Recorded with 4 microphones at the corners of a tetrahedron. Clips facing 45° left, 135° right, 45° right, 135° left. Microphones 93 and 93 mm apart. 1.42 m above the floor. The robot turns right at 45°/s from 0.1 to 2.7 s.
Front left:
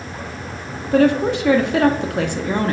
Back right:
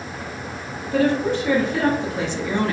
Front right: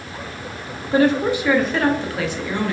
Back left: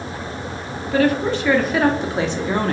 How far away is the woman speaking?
About 0.6 m.